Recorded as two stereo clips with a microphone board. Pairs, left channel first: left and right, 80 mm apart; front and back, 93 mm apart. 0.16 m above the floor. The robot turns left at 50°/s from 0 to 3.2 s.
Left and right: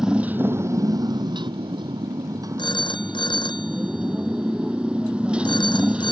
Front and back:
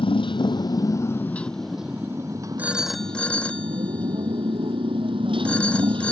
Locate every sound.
0.0 s a motorcycle: 5° right; by 6.1 s 165° right
2.6 s a phone ringing: 105° left; by 6.1 s 75° left